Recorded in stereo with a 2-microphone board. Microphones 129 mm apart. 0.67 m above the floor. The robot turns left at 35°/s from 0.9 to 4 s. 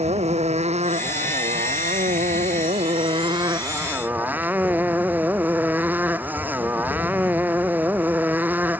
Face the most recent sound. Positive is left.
turn(degrees=-165)